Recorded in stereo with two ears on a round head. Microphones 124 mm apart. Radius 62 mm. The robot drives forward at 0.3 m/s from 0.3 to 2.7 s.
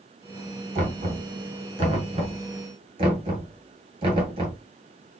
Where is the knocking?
50° right (ahead or behind), 2.5 m; by 4.6 s 40° right (ahead or behind), 2.5 m.